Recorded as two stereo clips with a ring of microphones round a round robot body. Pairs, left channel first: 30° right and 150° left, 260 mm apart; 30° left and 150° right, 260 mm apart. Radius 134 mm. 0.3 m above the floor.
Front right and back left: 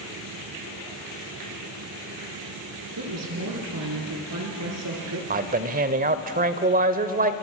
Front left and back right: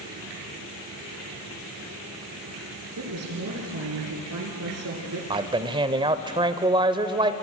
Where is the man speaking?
155° left, 1.0 m.